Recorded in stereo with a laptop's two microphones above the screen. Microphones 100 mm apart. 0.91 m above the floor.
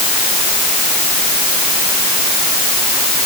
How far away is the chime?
No chime in this recording.